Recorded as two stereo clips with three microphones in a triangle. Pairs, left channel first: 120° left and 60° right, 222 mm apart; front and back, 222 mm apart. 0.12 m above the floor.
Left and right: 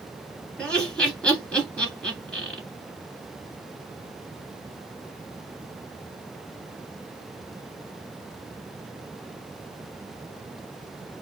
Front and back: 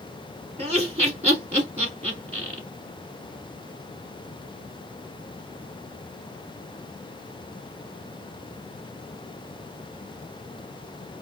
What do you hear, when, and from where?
0.6 s laughter: 155° right, 1.3 m